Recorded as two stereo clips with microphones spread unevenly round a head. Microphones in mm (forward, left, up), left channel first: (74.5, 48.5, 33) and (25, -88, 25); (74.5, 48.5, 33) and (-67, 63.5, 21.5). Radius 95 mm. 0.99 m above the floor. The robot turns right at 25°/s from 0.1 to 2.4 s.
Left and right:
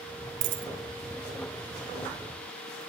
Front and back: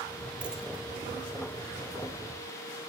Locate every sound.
0.4 s a dropped coin: 100° right; by 0.7 s 95° right